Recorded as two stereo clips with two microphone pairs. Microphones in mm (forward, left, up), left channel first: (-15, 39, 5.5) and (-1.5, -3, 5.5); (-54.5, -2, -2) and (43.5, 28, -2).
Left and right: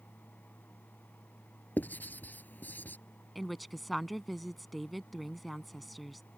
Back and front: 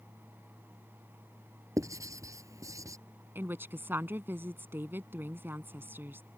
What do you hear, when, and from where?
1.8 s writing: 70° left
3.4 s a woman speaking: 20° left